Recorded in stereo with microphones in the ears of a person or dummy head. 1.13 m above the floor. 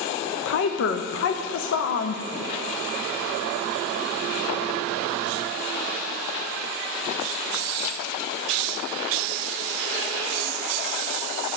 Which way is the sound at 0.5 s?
60° left (ahead or behind).